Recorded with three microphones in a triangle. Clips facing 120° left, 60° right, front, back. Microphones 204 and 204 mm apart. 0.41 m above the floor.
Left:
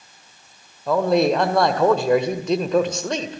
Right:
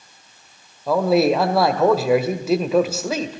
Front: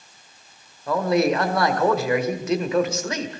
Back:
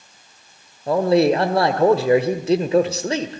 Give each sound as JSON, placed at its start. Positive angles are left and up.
{"t": 0.9, "sound": "a man speaking", "azimuth_deg": -140, "distance_m": 1.6}